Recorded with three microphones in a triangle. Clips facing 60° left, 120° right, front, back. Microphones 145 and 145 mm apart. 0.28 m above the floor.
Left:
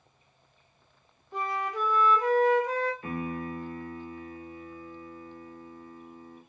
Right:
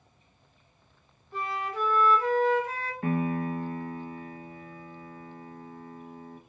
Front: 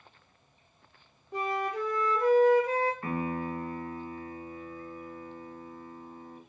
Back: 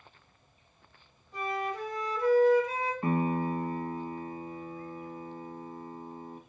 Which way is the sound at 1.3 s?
15° right.